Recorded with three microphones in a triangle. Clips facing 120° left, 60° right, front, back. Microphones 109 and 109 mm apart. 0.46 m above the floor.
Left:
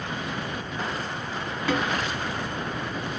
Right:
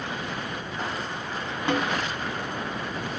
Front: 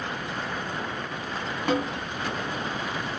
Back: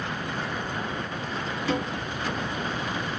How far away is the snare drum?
About 2 m.